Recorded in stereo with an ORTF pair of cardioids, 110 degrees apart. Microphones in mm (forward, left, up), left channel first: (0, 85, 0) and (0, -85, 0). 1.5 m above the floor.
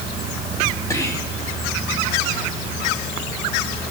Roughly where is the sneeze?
No sneeze in this recording.